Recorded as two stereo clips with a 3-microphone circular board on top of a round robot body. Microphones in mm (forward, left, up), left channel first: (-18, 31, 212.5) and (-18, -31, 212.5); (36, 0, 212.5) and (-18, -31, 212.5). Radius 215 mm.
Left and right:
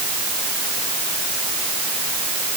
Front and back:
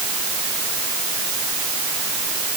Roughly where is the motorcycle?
No motorcycle in this recording.